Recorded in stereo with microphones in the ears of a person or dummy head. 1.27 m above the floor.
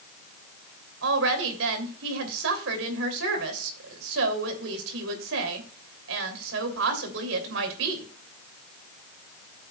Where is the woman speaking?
80° right, 3 m.